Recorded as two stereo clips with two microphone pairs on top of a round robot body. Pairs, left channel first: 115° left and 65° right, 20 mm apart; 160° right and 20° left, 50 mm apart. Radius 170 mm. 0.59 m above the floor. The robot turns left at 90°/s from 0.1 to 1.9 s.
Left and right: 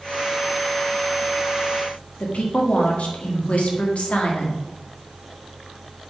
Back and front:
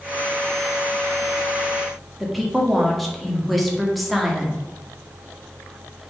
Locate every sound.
2.2 s a woman speaking: 110° left, 2 m